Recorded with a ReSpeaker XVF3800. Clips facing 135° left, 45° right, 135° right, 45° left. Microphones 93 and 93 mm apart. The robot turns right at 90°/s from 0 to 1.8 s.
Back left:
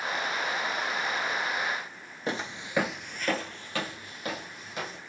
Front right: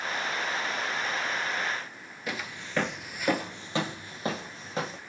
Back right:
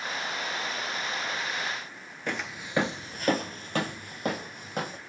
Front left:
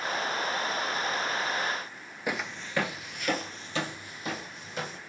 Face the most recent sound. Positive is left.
turn(degrees=-100)